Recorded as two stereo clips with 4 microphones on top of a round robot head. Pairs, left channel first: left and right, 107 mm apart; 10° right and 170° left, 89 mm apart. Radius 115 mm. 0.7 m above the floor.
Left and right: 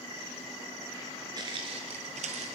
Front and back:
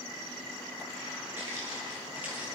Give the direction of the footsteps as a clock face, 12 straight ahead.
4 o'clock.